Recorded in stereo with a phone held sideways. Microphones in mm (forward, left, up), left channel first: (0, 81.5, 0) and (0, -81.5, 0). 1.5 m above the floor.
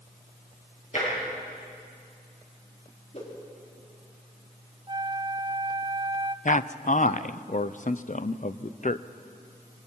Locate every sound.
0.9 s tapping: 50° left (ahead or behind), 10 m
3.1 s a whoosh: 50° left (ahead or behind), 3.5 m
4.9 s a flute: 25° right (ahead or behind), 0.6 m
6.5 s a man speaking: 55° left (ahead or behind), 0.6 m